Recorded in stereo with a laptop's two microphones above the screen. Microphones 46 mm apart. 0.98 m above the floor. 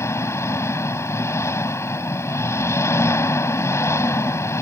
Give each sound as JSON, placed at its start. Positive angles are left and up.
{"t": 0.0, "sound": "an engine running", "side_deg": 80}